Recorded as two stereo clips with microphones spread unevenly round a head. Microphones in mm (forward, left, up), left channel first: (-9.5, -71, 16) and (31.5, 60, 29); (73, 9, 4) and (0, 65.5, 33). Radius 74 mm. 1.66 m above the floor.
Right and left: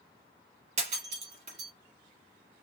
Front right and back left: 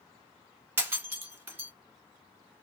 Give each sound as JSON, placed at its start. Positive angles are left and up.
{"t": 0.8, "sound": "breaking glass", "azimuth_deg": 95, "distance_m": 1.7}